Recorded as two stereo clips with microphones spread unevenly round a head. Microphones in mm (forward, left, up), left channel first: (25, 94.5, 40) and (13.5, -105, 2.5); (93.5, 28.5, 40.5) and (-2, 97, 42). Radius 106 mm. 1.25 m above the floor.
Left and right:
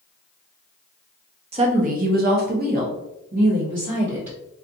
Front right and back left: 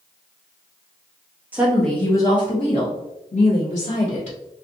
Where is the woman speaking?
140° right, 0.6 m; by 4.4 s 45° right, 1.5 m.